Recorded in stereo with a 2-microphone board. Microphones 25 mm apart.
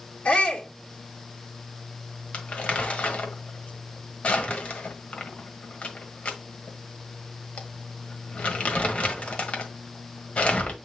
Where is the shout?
60° left (ahead or behind), 2.5 m.